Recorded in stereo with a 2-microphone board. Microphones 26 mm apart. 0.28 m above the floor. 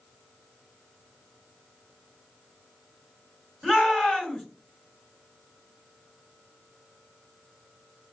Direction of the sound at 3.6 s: 15° left (ahead or behind).